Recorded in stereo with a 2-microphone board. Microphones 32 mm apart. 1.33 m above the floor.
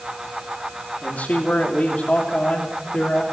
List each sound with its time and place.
1.0 s a man speaking: 60° left (ahead or behind), 3 m; by 3.2 s 35° left (ahead or behind), 3.5 m